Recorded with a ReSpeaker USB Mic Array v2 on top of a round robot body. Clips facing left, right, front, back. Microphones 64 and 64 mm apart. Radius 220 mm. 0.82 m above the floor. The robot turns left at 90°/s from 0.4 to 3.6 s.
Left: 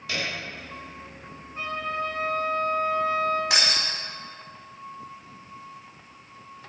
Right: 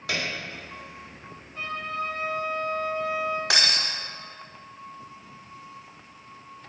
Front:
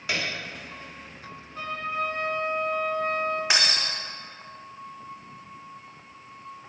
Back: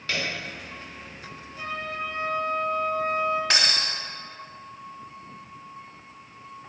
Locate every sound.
0.1 s a piano: 75° right, 2.5 m
1.6 s a trumpet: 25° left, 3 m; by 3.4 s 140° right, 3 m
3.5 s breaking glass: 75° right, 0.7 m; by 3.9 s 85° right, 0.7 m